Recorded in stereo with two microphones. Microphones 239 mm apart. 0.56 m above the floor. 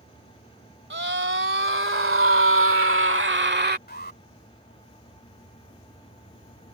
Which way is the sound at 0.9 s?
55° right (ahead or behind).